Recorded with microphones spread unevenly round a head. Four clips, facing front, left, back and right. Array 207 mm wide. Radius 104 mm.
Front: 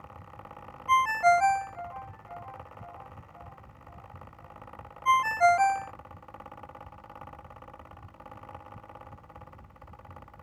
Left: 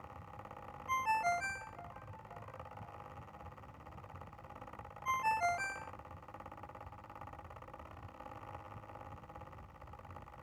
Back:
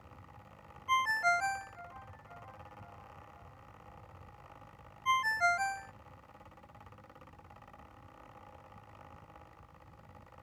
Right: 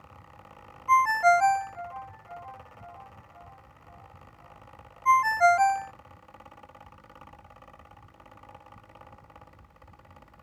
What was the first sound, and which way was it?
A ringtone, 50° right.